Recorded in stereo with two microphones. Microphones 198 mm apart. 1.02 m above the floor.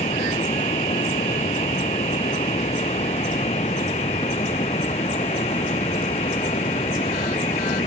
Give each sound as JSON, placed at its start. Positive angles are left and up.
{"t": 0.0, "sound": "running water", "side_deg": 30}